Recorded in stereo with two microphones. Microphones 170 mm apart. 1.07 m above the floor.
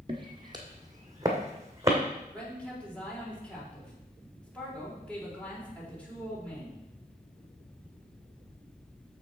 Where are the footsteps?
30° right (ahead or behind), 1.5 m; by 2.0 s 15° right (ahead or behind), 2.5 m.